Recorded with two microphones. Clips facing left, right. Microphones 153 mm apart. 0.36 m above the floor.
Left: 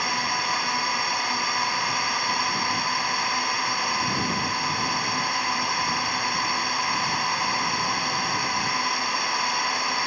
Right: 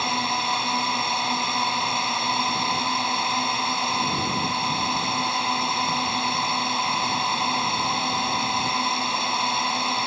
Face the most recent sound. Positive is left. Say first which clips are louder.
# right 2 dB
turn(degrees=-25)  # may be behind; listen again after turning